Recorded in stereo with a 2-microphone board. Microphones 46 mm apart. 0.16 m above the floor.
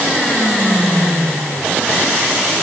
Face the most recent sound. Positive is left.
No sound to turn to.